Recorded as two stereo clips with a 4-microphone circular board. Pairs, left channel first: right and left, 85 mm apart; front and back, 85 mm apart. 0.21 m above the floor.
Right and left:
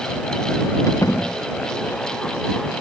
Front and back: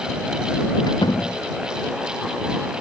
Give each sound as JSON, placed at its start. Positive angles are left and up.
{"t": 0.9, "sound": "a door slam", "azimuth_deg": -35}